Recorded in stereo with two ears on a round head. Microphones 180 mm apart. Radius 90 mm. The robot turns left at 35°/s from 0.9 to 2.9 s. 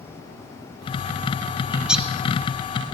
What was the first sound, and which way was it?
A bird, 10° right (ahead or behind).